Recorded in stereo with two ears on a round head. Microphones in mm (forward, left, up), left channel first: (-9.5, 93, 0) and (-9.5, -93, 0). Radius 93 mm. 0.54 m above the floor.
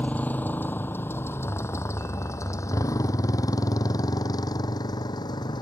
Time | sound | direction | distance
0.0 | a motorcycle | 5° left (ahead or behind) | ?